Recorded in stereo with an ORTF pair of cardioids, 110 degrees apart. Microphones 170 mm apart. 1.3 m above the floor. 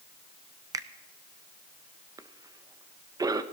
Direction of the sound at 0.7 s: 20° right.